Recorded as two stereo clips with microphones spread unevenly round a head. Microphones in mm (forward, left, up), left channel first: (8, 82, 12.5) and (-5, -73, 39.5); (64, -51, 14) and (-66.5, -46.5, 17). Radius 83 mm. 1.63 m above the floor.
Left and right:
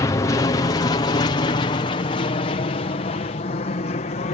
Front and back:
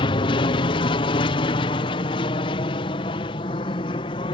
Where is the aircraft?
35° left; by 4.3 s 50° left.